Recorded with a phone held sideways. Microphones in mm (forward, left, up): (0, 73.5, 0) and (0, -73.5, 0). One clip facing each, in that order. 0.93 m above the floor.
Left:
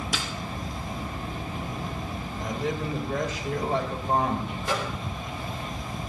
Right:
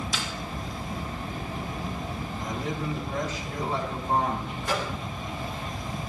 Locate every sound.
0.1 s a snare drum: 70° left (ahead or behind), 5 m
2.4 s a man speaking: 65° left (ahead or behind), 3.5 m
4.6 s a microwave: 25° left (ahead or behind), 4 m